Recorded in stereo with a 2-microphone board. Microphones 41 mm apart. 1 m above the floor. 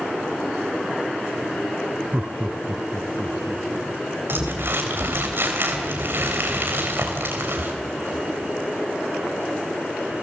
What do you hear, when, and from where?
2.1 s laughter: 25° right (ahead or behind), 0.6 m; by 5.3 s 5° right (ahead or behind), 3 m
4.3 s crumpling: 60° right (ahead or behind), 3.5 m